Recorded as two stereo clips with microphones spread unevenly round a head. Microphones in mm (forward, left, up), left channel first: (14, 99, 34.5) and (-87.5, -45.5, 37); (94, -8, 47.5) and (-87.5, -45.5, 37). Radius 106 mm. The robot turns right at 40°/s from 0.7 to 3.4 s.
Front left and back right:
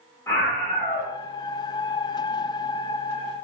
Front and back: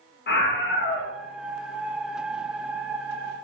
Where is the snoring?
No snoring in this recording.